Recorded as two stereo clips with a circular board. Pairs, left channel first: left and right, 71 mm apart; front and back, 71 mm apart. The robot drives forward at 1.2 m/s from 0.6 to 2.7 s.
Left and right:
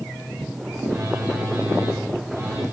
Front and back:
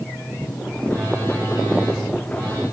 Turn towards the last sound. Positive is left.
turn(degrees=-145)